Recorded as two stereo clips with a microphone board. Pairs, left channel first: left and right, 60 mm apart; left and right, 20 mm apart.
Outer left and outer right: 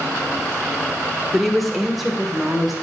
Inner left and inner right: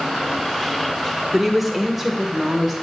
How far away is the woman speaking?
About 0.8 m.